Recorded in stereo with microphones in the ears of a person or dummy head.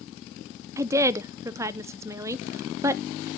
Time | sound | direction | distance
0.8 | a woman speaking | 15° right (ahead or behind) | 0.5 m